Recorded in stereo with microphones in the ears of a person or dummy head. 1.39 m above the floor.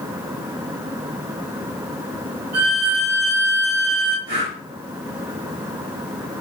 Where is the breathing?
65° right (ahead or behind), 2 m.